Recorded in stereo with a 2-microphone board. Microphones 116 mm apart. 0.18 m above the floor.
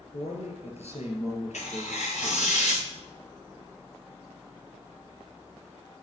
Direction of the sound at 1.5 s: 85° left.